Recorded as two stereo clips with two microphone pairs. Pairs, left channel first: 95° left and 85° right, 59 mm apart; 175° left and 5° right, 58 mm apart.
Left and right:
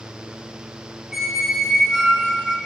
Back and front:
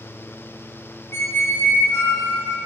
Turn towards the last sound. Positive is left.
turn(degrees=-175)